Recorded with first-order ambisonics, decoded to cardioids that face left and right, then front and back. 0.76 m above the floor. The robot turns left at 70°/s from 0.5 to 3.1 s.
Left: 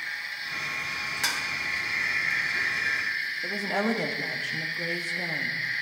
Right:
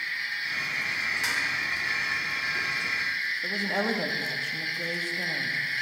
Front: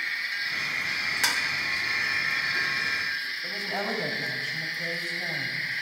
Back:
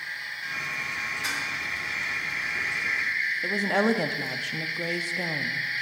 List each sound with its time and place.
1.2 s dishes clattering: 20° left, 1.3 m; by 1.4 s 5° left, 1.3 m
3.4 s a woman speaking: 175° left, 1.1 m